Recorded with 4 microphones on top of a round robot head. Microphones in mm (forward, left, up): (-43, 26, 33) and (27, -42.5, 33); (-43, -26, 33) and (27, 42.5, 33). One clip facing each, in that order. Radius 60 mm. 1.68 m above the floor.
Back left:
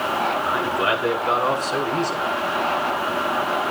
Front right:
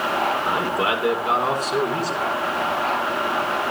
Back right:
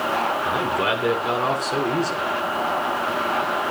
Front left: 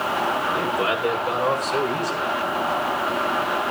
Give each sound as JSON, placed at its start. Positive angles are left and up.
{"t": 0.5, "sound": "a man speaking", "azimuth_deg": -105, "distance_m": 6.5}